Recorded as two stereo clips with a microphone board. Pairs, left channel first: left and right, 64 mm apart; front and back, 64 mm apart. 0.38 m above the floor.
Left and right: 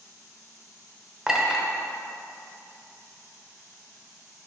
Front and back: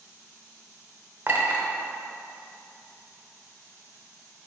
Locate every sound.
1.3 s a clink: 165° right, 0.8 m